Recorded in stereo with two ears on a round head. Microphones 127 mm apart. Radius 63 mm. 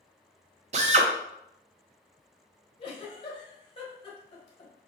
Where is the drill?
55° right (ahead or behind), 0.9 m.